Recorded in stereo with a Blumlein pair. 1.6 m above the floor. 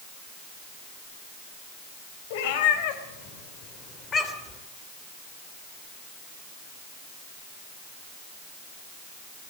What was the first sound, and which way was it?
A cat meowing, 50° left.